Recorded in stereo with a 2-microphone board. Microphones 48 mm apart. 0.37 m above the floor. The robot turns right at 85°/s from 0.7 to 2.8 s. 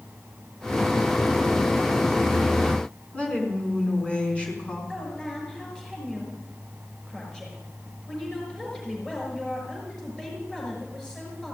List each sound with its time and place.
3.1 s a woman speaking: 20° left (ahead or behind), 4.5 m
4.9 s a woman speaking: 10° left (ahead or behind), 6 m